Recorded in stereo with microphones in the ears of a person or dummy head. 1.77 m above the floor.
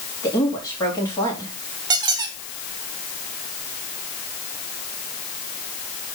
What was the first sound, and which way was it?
A woman speaking, 20° left (ahead or behind).